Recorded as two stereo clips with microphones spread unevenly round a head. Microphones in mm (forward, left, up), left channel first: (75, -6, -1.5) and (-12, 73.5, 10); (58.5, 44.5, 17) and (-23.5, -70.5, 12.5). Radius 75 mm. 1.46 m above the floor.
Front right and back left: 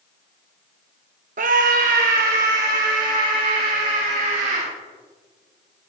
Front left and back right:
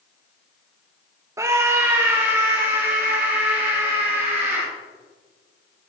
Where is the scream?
165° left, 0.7 m; by 4.7 s 155° left, 5 m.